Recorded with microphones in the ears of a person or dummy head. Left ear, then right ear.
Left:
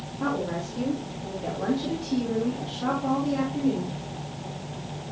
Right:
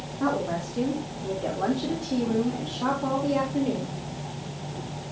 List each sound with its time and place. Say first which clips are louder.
0.2 s a woman speaking: right 2 dB; 10° right (ahead or behind), 2 m; by 4.0 s 50° right (ahead or behind), 3.5 m